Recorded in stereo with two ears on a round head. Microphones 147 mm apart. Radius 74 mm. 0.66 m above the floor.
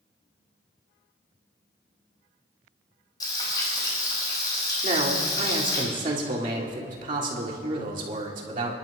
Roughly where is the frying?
Left.